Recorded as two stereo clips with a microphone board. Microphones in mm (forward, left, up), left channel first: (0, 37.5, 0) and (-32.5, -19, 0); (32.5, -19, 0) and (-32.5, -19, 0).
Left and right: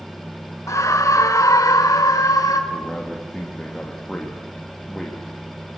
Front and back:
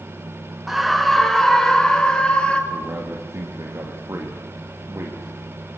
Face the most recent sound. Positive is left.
turn(degrees=140)